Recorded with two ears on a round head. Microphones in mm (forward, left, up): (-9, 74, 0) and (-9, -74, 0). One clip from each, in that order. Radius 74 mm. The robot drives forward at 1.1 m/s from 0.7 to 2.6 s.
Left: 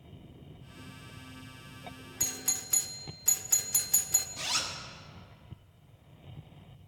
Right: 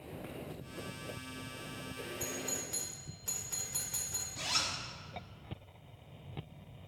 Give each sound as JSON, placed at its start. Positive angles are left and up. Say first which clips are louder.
{"t": 2.2, "sound": "a doorbell", "louder": "left 8 dB", "side_deg": 85, "distance_m": 0.7}
{"t": 4.4, "sound": "a zipper", "louder": "left 2 dB", "side_deg": 30, "distance_m": 1.2}